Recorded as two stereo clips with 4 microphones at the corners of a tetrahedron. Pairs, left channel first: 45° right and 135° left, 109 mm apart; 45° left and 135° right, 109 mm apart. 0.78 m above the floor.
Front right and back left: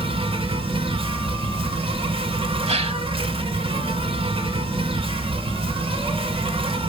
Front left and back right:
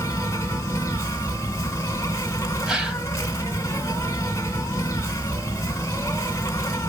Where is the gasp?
140° left, 1.5 m.